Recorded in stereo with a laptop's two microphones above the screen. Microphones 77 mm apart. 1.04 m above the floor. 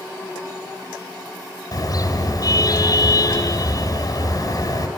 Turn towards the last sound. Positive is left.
turn(degrees=50)  # may be behind; listen again after turning